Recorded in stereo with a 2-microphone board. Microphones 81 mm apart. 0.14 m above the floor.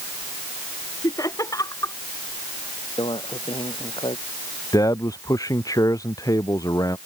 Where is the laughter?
45° left (ahead or behind).